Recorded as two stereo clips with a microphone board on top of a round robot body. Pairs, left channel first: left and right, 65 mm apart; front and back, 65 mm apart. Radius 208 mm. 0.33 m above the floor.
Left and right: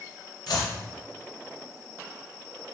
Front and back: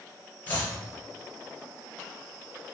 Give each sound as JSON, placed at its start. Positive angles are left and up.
{"t": 0.5, "sound": "chopping", "azimuth_deg": 70, "distance_m": 0.5}